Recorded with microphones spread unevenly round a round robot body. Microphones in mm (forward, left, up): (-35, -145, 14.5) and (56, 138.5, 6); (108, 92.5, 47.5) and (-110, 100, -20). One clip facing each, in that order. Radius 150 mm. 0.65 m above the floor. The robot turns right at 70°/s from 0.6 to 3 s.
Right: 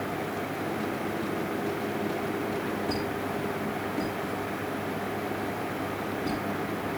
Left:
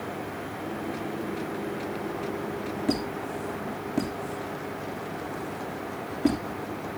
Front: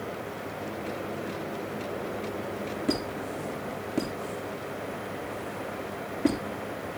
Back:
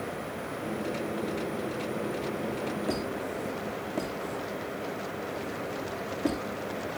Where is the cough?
I don't hear a cough.